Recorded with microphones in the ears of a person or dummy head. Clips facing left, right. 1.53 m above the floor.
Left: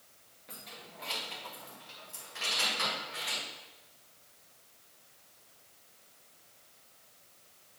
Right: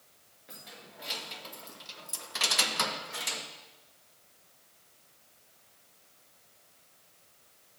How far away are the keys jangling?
About 1.8 m.